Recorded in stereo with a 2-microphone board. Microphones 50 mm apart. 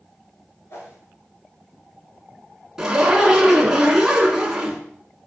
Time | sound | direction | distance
0.7 | a whoosh | 65° left (ahead or behind) | 2 m
2.8 | a zipper | 10° right (ahead or behind) | 1.3 m